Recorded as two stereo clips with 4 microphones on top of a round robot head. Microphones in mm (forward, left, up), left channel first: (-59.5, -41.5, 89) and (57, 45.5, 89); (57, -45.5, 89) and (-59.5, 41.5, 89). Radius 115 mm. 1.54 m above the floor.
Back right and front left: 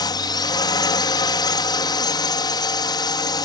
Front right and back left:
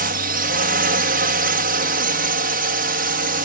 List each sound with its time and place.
0.0 s a drone: 155° left